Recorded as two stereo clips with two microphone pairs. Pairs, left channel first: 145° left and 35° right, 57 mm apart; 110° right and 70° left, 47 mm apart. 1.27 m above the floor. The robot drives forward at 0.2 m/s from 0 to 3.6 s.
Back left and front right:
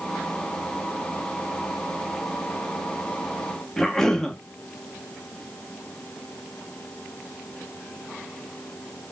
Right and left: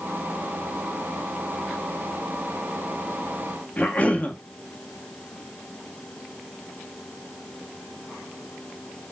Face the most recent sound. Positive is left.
turn(degrees=-135)